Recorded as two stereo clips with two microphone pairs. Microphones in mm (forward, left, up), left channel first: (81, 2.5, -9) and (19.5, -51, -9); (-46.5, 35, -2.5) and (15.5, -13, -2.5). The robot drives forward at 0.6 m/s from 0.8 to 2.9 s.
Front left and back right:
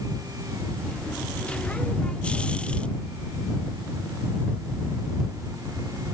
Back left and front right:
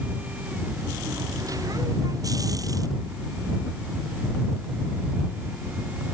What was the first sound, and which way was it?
Only background noise.